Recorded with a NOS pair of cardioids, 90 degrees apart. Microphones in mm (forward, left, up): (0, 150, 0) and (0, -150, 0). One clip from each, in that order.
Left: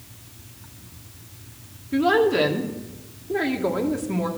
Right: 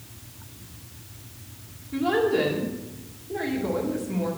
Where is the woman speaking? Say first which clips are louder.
Left 4 dB; 45° left, 2 m.